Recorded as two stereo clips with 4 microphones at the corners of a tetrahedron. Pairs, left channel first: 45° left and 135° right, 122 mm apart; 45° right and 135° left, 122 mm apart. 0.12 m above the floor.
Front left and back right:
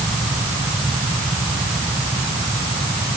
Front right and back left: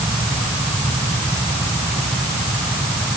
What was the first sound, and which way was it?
Only background noise.